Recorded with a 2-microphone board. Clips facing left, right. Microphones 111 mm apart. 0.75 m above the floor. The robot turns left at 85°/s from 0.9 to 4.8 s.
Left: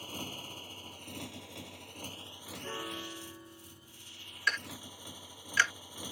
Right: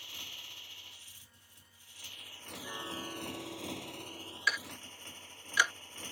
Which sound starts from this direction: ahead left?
A piano, at 2.6 s.